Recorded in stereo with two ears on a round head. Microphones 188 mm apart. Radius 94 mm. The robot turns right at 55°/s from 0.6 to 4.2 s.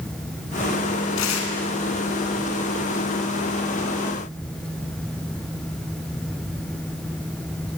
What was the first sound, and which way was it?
Tearing paper, 65° left (ahead or behind).